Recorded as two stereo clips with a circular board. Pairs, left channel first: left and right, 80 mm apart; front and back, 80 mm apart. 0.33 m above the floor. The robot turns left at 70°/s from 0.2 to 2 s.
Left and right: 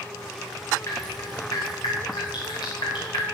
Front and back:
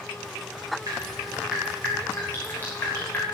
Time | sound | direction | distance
0.9 | dripping | 145° left | 8 m